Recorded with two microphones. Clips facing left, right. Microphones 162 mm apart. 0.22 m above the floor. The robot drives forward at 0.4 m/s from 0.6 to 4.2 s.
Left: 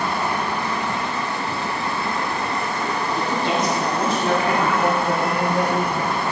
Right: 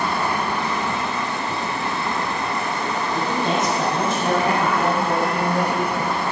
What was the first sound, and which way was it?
A woman speaking, 30° right (ahead or behind).